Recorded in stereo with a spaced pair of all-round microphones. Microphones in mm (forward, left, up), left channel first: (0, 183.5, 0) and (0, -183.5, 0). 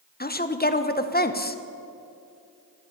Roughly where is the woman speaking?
Left.